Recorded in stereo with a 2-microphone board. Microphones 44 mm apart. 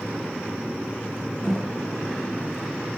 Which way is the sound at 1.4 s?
Centre (ahead or behind).